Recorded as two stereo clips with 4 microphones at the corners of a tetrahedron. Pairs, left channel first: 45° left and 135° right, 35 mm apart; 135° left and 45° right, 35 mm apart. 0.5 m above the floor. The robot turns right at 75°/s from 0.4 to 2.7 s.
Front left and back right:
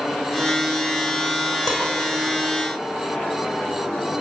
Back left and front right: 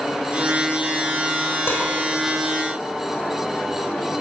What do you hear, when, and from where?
1.7 s dishes clattering: 135° left, 6 m; by 1.9 s 150° left, 6 m